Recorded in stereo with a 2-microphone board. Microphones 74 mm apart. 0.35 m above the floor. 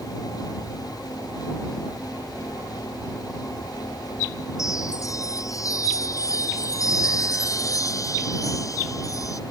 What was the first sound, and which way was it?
A chime, 50° left (ahead or behind).